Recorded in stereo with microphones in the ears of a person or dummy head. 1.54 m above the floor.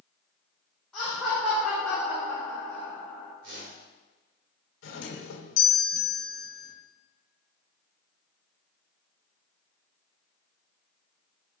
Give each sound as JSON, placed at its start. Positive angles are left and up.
{"t": 0.9, "sound": "laughter", "side_deg": 0, "distance_m": 2.5}
{"t": 3.4, "sound": "a whoosh", "side_deg": -70, "distance_m": 2.5}
{"t": 4.8, "sound": "a doorbell", "side_deg": 80, "distance_m": 1.2}